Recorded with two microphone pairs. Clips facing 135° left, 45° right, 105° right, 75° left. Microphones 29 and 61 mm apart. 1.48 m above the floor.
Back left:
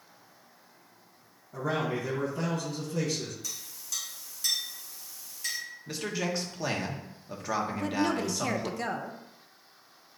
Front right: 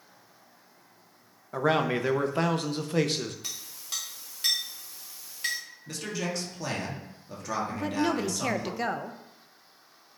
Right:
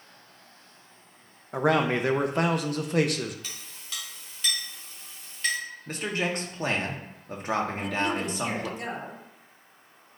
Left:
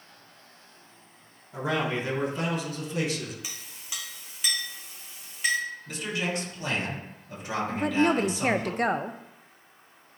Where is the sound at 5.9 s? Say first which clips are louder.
Back left 1 dB, right 4 dB; 150° right, 1.4 m.